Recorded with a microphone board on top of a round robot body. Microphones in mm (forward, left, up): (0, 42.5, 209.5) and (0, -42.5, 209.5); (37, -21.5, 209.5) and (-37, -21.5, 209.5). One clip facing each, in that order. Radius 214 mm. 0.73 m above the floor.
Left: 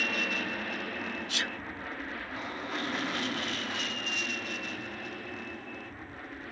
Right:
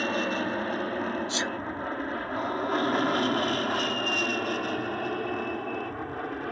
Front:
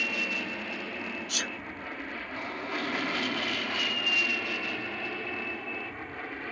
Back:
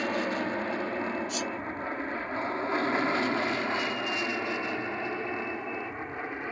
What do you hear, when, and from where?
0.0 s an aircraft: 135° right; by 6.5 s 110° right
1.3 s a sneeze: 25° right